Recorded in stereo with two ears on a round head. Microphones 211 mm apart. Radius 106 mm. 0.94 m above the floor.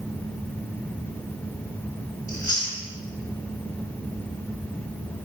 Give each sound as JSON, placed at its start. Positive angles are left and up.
{"t": 2.3, "sound": "chewing", "side_deg": 15, "distance_m": 3.0}